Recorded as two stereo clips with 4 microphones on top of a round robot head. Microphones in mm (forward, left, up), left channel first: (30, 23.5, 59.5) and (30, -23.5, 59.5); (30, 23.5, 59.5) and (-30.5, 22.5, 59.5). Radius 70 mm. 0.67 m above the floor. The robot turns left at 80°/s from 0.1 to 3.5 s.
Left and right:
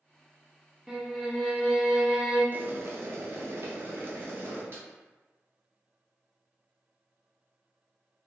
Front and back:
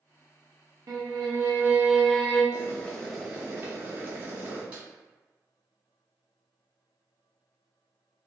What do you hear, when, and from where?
0.9 s a violin: 175° right, 0.7 m; by 2.4 s 65° left, 0.7 m
2.5 s boiling: 40° right, 0.6 m; by 4.6 s 120° right, 0.6 m
4.7 s a snare drum: 110° right, 1.1 m